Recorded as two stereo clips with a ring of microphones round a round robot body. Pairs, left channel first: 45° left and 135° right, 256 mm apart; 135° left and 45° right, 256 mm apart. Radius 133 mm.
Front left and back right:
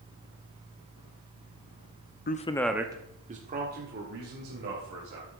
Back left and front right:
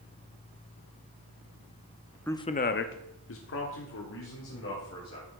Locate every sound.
2.3 s a man speaking: 55° left, 0.8 m; by 5.3 s 175° left, 3.5 m